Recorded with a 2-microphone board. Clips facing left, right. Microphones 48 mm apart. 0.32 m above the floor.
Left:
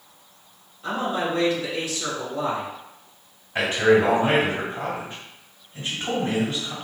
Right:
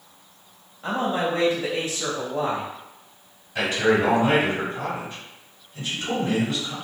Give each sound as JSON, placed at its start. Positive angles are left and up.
{"t": 0.8, "sound": "a man speaking", "side_deg": -35, "distance_m": 1.9}
{"t": 3.5, "sound": "a man speaking", "side_deg": 35, "distance_m": 1.8}